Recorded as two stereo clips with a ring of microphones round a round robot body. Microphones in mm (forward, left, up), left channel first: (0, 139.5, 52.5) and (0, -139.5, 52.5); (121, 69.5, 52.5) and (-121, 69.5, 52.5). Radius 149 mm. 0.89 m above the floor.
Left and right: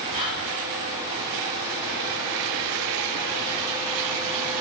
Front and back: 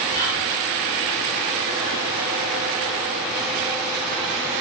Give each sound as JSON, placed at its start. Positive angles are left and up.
{"t": 0.1, "sound": "whispering", "azimuth_deg": -150, "distance_m": 1.0}